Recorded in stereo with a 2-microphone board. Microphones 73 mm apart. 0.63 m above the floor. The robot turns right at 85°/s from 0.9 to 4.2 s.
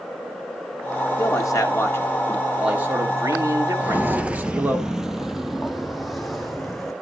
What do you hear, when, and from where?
1.2 s a man speaking: 70° left, 1.6 m; by 4.8 s 30° right, 1.6 m
3.8 s footsteps: 20° right (ahead or behind), 0.6 m; by 6.9 s centre (ahead or behind), 2.0 m